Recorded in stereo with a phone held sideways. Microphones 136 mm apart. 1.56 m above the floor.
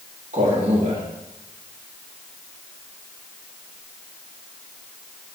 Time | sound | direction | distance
0.3 | a man speaking | 70° right (ahead or behind) | 3 m